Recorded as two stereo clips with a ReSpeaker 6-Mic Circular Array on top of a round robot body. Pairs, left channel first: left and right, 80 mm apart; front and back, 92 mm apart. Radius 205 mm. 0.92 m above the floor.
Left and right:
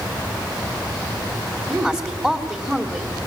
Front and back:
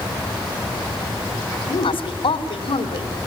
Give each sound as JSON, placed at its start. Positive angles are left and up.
{"t": 1.7, "sound": "a woman speaking", "azimuth_deg": -5, "distance_m": 2.5}